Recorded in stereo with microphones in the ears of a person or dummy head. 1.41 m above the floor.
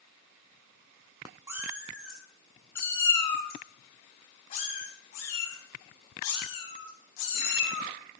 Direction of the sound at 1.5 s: 15° right (ahead or behind).